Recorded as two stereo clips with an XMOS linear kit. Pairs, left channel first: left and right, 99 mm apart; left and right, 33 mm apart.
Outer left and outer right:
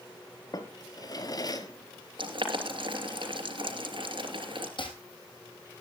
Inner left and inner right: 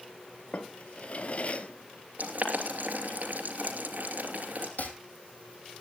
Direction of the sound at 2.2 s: 60° right (ahead or behind).